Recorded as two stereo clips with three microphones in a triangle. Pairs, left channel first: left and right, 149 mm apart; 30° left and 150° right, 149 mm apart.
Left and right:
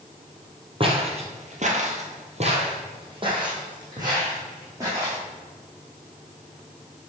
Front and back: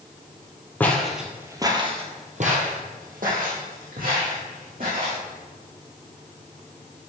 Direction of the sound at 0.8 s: 45° right.